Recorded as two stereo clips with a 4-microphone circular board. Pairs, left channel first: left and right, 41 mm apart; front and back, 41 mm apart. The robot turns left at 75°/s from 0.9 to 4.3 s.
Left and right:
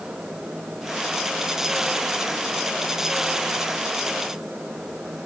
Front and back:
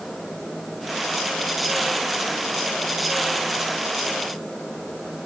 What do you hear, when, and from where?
Only background noise.